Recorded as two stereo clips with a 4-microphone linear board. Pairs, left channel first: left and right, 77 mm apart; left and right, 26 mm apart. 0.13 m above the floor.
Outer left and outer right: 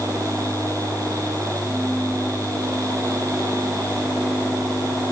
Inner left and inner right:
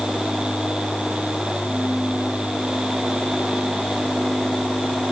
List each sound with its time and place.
Only background noise.